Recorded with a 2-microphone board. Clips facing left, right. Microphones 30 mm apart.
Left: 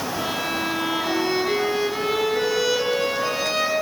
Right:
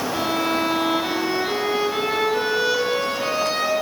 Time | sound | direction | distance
0.1 | a violin | 50° right (ahead or behind) | 7.5 m